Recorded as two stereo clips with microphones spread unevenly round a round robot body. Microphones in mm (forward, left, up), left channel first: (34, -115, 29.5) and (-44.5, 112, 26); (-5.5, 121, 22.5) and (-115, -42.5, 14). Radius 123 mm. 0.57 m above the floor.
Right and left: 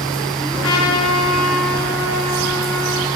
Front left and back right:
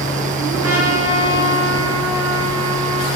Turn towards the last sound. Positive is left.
turn(degrees=-100)